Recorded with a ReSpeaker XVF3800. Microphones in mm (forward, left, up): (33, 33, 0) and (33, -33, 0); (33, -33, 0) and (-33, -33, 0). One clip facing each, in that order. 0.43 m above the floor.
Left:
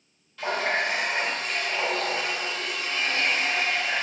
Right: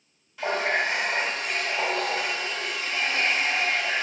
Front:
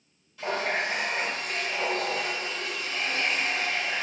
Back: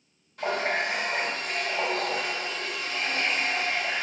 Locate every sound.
0.4 s a running tap: 165° right, 0.9 m